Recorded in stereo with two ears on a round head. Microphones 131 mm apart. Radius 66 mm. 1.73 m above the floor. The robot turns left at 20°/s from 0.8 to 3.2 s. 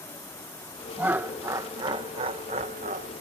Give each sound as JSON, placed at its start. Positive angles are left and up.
{"t": 1.0, "sound": "laughter", "azimuth_deg": -10}